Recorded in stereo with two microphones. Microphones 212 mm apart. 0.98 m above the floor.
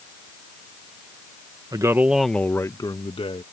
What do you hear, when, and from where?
1.7 s a man speaking: 20° right (ahead or behind); by 3.4 s 30° left (ahead or behind)